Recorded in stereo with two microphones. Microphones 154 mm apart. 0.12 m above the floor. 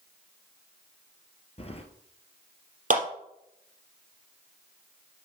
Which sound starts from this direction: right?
A clap, at 2.9 s.